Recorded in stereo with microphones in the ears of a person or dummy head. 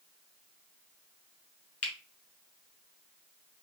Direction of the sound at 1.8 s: 35° left (ahead or behind).